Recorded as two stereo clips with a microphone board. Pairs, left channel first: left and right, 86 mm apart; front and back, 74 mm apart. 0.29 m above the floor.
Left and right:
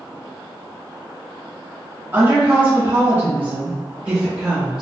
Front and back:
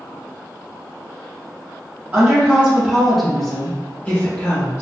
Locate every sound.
2.1 s a woman speaking: 140° right, 1.2 m; by 4.8 s 15° right, 1.3 m